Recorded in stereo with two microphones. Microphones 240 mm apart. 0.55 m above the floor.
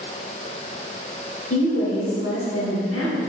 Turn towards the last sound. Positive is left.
turn(degrees=60)  # may be behind; listen again after turning